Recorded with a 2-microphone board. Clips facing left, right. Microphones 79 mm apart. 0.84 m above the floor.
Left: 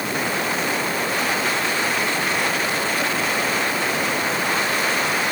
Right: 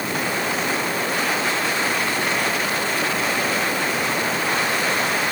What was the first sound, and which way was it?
Only background noise.